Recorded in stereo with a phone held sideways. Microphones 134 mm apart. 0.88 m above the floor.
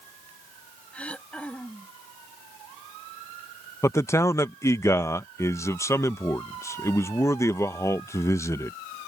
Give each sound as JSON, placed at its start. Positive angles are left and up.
{"t": 0.9, "sound": "throat clearing", "side_deg": 10}
{"t": 3.8, "sound": "a man speaking", "side_deg": 20}